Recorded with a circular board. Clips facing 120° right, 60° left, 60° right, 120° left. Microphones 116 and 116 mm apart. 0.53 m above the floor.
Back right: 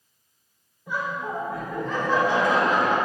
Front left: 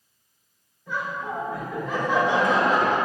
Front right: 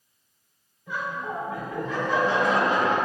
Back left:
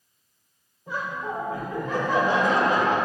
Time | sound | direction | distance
0.9 | laughter | 165° left | 1.3 m